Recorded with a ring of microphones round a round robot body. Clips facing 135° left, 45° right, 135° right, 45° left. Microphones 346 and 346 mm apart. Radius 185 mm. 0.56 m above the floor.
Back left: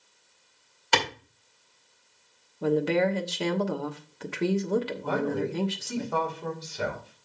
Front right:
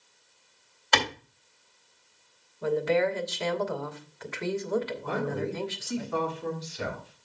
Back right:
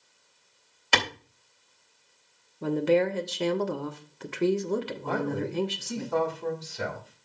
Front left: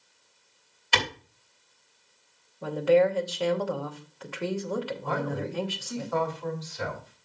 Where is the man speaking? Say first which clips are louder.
Back left 3 dB, back right 2 dB; 175° left, 3.5 m.